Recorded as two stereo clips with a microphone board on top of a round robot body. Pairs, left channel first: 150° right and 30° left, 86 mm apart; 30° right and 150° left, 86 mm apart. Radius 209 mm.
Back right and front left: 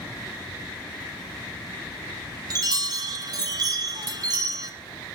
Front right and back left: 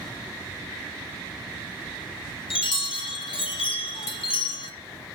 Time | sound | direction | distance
2.5 | a chime | 15° right | 1.2 m